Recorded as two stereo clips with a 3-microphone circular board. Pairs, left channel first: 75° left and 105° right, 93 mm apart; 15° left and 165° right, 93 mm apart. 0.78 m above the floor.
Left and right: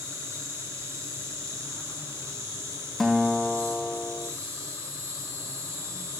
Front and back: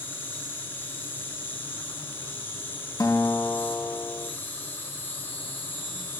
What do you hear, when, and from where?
0.0 s an insect: 50° right, 1.9 m
3.0 s a guitar: 15° right, 0.8 m